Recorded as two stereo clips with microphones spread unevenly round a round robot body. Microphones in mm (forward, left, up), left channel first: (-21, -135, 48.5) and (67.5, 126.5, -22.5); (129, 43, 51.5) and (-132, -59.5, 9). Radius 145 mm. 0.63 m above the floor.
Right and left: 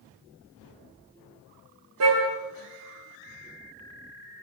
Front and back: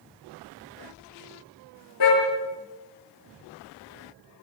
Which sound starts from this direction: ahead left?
A car horn, at 2.0 s.